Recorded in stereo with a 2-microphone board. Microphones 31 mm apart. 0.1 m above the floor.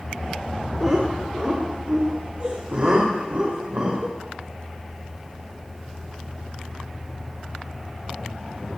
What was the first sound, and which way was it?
Laughter, 15° right (ahead or behind).